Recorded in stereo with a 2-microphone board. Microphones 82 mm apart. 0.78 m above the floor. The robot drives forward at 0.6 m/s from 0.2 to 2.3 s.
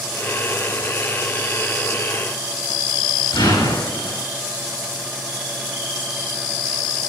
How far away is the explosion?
About 3 m.